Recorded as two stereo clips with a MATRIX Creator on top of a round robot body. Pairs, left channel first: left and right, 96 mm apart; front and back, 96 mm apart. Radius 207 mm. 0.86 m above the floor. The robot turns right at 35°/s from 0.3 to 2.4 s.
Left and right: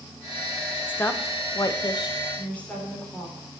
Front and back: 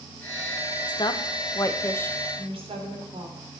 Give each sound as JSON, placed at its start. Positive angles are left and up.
{"t": 0.9, "sound": "a woman speaking", "azimuth_deg": 25, "distance_m": 1.4}
{"t": 2.4, "sound": "a woman speaking", "azimuth_deg": 165, "distance_m": 4.0}